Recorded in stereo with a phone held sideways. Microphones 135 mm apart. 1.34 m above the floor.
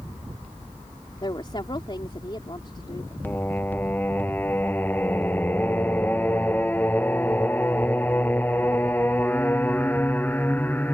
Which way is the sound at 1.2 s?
35° left (ahead or behind).